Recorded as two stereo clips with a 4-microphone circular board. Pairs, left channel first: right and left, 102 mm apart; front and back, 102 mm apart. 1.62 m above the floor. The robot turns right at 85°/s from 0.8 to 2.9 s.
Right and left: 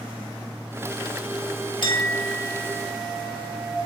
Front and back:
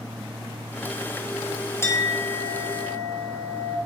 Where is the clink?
65° right, 1.1 m; by 3.8 s 30° left, 1.1 m.